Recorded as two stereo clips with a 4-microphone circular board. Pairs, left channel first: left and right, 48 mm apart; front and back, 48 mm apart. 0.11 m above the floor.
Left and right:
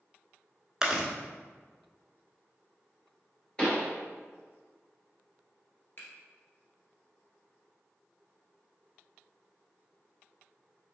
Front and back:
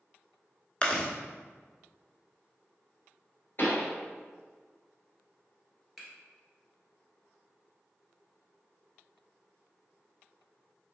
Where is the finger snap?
95° left, 1.6 m.